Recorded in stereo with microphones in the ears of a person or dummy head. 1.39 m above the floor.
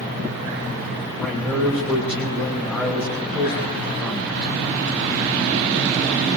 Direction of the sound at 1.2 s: 10° left (ahead or behind).